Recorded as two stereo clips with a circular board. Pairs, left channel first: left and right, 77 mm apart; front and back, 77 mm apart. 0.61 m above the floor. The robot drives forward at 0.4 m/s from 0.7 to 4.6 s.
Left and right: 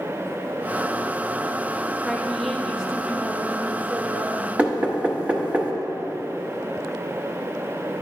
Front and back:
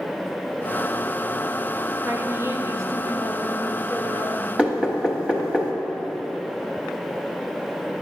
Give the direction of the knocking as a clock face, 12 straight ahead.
4 o'clock.